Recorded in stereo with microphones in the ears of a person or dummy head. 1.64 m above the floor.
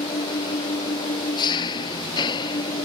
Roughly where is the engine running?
Left.